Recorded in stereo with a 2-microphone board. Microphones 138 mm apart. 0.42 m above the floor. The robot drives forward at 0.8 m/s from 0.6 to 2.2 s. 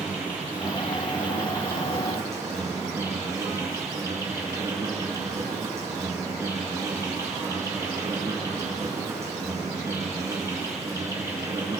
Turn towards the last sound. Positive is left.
turn(degrees=-20)  # may be behind; listen again after turning